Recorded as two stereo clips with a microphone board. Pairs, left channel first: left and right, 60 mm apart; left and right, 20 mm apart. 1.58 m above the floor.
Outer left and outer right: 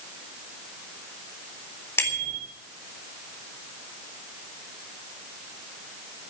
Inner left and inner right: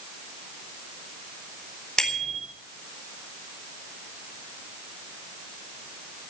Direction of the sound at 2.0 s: 40° left (ahead or behind).